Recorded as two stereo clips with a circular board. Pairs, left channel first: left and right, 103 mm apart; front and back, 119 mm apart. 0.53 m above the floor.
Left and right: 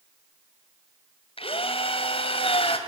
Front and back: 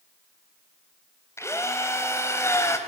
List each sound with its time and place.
1.4 s a drill: 65° left, 3 m